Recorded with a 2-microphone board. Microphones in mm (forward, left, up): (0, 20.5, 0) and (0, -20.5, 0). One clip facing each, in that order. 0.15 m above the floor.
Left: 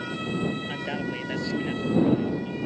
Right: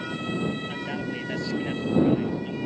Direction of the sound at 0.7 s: 20° left (ahead or behind).